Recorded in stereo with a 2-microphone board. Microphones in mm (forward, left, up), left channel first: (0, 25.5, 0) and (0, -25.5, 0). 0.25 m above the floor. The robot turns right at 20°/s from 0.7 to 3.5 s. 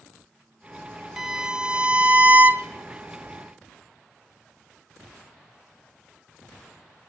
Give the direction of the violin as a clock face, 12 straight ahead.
6 o'clock.